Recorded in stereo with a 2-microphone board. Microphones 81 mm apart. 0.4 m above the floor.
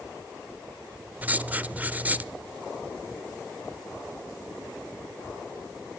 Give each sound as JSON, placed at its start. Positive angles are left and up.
{"t": 1.2, "sound": "writing", "side_deg": -20, "distance_m": 0.8}